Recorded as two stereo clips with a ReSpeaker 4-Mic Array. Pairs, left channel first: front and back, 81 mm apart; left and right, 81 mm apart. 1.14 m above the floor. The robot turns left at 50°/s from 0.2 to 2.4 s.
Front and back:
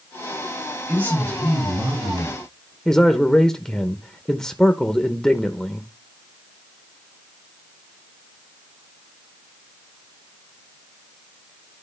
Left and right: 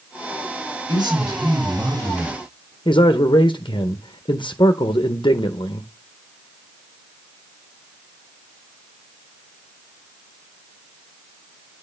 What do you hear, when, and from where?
0.9 s a man speaking: 105° right, 6.5 m; by 2.8 s straight behind, 6.5 m
2.9 s a man speaking: 80° left, 0.8 m